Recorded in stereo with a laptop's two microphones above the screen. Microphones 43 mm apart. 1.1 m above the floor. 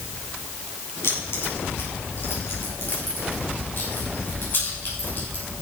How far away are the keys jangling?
About 4.5 m.